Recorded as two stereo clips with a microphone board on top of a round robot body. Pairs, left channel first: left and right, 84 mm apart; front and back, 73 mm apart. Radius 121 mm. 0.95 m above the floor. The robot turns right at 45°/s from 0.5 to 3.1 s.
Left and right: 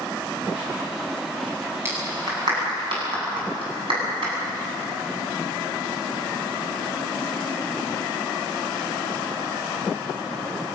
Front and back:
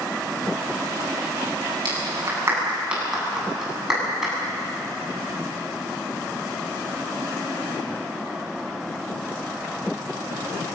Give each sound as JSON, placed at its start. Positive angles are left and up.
{"t": 1.9, "sound": "a clap", "azimuth_deg": -150, "distance_m": 8.0}